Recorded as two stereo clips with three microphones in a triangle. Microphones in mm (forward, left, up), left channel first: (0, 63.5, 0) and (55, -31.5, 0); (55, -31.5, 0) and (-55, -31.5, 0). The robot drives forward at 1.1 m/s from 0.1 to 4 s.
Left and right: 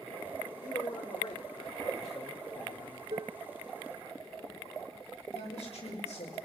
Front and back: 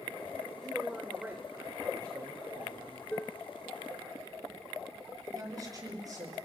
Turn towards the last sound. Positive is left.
turn(degrees=125)